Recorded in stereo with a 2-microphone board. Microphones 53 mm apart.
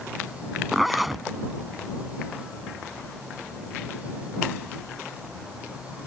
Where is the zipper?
5° right (ahead or behind).